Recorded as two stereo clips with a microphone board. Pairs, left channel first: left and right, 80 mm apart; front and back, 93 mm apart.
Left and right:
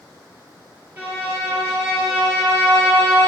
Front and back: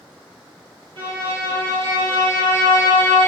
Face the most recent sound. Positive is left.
turn(degrees=-155)